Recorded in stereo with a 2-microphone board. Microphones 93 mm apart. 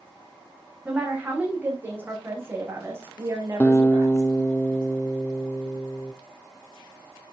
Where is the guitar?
15° left (ahead or behind), 0.5 m.